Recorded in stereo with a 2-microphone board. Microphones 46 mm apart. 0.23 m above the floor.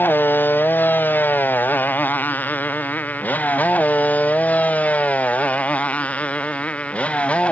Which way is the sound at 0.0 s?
45° left (ahead or behind).